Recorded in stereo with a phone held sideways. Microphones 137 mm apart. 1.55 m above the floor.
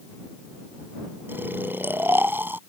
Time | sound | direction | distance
1.3 | snoring | 15° right (ahead or behind) | ?